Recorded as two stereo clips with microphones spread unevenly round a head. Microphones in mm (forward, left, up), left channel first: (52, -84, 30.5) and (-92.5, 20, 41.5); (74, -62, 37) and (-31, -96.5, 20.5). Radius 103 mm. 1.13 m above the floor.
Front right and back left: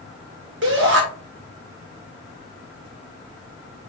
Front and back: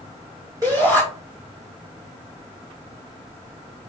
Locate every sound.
0.6 s a shout: 135° left, 1.8 m